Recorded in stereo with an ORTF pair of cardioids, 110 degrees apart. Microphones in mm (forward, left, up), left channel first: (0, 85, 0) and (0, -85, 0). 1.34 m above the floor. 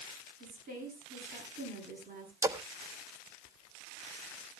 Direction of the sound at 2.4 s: 20° right.